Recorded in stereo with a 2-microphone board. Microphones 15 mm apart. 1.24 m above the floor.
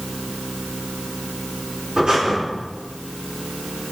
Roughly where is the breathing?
Right.